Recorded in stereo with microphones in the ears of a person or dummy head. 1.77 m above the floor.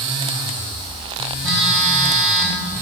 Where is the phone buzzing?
15° right (ahead or behind), 2.5 m.